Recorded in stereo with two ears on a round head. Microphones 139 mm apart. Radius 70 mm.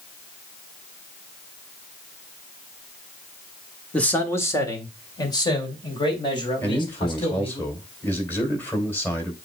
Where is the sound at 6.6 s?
10° left (ahead or behind), 3 m.